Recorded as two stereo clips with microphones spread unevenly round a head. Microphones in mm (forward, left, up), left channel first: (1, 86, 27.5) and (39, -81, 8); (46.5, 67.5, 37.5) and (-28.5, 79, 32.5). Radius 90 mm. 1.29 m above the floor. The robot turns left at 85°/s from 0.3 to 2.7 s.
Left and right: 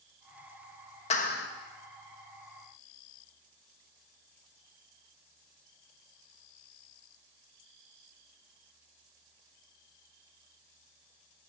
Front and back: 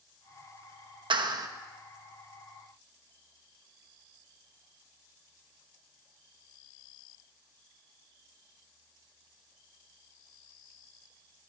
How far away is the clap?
About 1.1 m.